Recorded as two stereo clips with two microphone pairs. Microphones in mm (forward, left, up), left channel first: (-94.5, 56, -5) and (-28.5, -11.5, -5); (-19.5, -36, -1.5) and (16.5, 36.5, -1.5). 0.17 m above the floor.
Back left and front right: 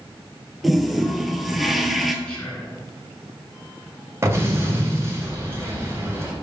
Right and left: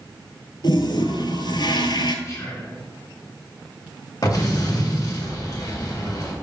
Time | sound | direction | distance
0.6 | a toilet flushing | 140° right | 0.7 m
2.2 | whispering | 150° right | 2.5 m
4.2 | an explosion | 100° right | 1.7 m